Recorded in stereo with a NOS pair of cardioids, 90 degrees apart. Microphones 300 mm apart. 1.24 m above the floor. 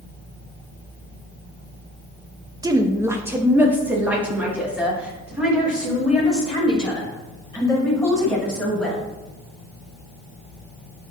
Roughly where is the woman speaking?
Ahead.